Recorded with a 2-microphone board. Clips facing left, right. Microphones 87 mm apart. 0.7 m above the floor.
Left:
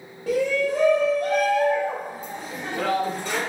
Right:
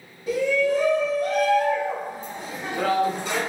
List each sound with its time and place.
0.3 s a shout: 70° left (ahead or behind), 1.3 m; by 3.4 s 20° right (ahead or behind), 1.5 m